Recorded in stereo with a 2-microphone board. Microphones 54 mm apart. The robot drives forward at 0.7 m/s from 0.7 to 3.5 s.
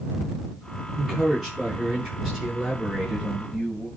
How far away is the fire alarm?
No fire alarm in this recording.